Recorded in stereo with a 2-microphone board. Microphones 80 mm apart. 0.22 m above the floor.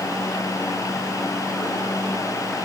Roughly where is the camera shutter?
No camera shutter in this recording.